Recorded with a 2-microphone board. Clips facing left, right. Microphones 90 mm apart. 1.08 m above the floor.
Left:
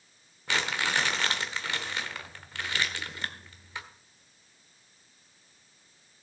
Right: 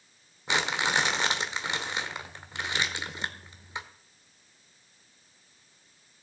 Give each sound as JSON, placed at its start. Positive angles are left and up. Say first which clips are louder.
{"t": 0.5, "sound": "crumpling", "louder": "right 2 dB", "side_deg": -20, "distance_m": 1.0}